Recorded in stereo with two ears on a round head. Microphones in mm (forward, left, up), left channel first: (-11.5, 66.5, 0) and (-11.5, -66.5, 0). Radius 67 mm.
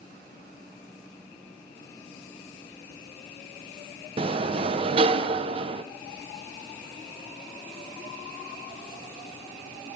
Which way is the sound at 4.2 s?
40° right (ahead or behind).